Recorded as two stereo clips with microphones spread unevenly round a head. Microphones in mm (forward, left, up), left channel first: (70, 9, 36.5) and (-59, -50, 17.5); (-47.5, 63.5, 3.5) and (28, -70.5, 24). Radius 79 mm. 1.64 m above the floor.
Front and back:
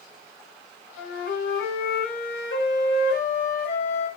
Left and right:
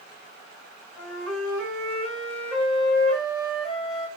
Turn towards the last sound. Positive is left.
turn(degrees=30)